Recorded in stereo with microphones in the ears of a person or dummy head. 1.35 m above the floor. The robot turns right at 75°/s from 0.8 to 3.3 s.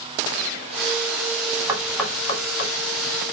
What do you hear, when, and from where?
1.7 s knocking: 15° right (ahead or behind), 1.6 m; by 2.7 s 55° left (ahead or behind), 1.6 m